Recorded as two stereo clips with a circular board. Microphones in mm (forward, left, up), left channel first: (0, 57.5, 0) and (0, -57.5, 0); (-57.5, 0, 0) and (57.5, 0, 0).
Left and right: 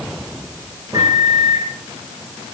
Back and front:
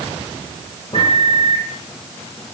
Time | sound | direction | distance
0.9 | a microwave | 150° right | 7.5 m